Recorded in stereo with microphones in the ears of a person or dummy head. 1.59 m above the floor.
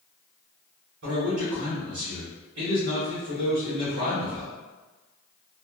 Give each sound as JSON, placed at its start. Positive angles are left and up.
{"t": 1.0, "sound": "a man speaking", "side_deg": -75, "distance_m": 1.5}